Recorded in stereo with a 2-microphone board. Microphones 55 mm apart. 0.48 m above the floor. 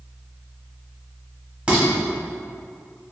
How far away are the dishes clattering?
About 0.9 m.